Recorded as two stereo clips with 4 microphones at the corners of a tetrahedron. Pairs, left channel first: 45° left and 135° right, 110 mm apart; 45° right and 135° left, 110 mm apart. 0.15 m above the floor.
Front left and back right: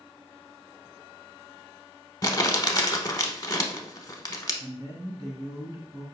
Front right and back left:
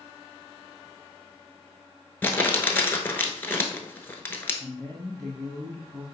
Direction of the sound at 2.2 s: 15° left.